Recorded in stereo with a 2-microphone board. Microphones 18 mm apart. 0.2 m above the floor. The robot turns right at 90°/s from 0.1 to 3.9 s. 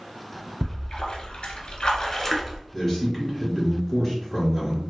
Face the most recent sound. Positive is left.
turn(degrees=20)  # may be behind; listen again after turning